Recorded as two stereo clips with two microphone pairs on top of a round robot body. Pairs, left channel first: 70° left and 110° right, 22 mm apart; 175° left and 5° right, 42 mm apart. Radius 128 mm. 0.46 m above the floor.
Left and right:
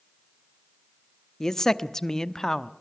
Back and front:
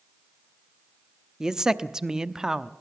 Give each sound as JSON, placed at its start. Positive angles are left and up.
{"t": 1.4, "sound": "a man speaking", "azimuth_deg": 80, "distance_m": 1.0}